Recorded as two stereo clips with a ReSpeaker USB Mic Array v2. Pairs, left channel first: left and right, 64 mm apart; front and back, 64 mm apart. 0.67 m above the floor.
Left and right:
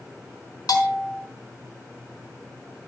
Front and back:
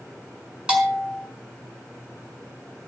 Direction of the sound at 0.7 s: 105° left.